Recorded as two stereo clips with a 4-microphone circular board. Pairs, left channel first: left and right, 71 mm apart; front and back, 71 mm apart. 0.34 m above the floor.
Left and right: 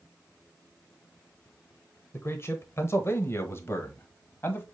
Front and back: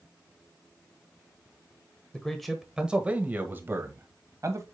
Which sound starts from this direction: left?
A man speaking, at 2.1 s.